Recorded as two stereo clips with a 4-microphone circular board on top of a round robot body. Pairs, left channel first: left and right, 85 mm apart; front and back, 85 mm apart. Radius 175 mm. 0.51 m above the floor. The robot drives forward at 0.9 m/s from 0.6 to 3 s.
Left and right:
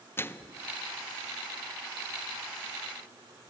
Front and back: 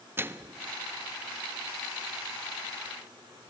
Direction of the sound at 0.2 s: 135° left.